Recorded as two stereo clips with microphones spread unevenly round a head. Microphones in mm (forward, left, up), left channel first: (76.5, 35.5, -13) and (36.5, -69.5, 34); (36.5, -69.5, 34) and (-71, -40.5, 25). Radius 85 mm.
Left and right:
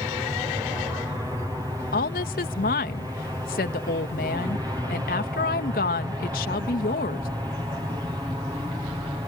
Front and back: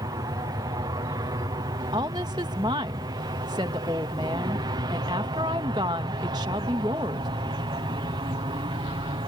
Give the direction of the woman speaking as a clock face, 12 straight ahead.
9 o'clock.